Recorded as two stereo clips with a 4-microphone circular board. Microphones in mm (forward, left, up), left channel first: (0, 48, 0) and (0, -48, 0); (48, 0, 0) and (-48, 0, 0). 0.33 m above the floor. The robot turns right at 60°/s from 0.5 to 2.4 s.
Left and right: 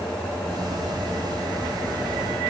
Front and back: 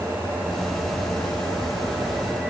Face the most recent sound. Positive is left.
No sound to turn to.